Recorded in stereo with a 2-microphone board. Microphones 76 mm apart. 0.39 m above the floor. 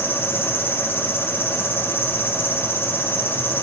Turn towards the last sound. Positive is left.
turn(degrees=30)  # may be behind; listen again after turning